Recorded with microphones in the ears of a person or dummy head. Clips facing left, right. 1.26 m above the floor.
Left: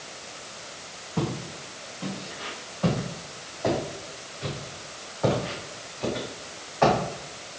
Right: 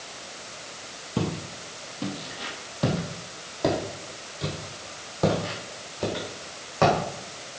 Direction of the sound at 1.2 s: 50° right (ahead or behind).